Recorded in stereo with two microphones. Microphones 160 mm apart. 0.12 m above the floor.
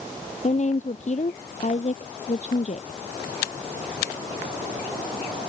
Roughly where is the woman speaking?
Left.